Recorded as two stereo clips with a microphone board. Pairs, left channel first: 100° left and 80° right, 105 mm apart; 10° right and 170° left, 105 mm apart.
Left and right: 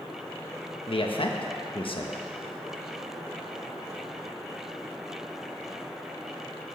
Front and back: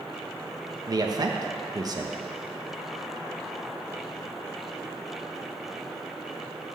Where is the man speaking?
120° left, 1.0 m.